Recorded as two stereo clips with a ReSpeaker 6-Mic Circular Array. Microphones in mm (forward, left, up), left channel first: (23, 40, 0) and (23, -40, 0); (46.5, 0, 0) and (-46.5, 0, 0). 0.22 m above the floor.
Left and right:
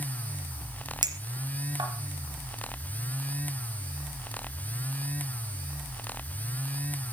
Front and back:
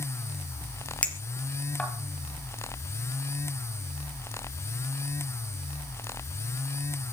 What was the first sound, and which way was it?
A clink, 75° right.